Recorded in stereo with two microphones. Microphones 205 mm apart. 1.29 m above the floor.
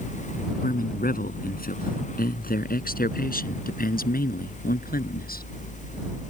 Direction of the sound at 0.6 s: 45° left (ahead or behind).